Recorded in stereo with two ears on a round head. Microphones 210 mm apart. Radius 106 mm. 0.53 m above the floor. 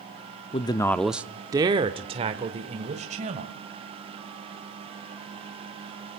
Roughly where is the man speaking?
Left.